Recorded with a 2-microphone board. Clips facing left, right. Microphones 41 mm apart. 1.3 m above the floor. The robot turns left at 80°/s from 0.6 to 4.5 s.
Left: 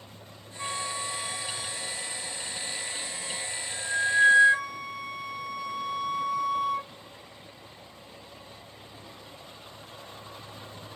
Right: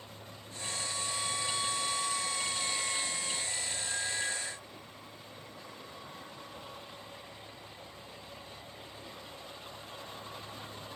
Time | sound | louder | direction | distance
0.6 | a flute | left 5 dB | 50° left | ?